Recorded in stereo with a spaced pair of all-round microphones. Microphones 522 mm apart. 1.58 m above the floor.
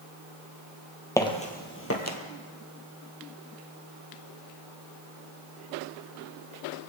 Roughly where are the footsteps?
Centre.